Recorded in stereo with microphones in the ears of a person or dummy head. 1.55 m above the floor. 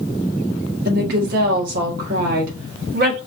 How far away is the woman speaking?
About 1.4 m.